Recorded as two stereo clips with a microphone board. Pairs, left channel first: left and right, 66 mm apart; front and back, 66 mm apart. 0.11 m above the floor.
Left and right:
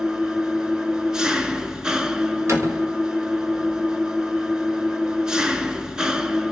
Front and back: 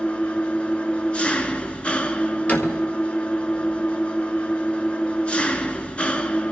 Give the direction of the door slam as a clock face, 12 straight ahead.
2 o'clock.